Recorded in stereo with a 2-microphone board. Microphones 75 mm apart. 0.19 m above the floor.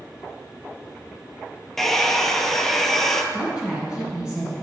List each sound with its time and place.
1.8 s a hair dryer: 5° left (ahead or behind), 0.6 m
3.3 s a woman speaking: 10° right (ahead or behind), 1.7 m